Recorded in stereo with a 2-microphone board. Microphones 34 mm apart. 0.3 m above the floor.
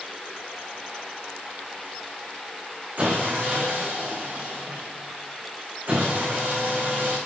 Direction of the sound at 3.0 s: 60° right (ahead or behind).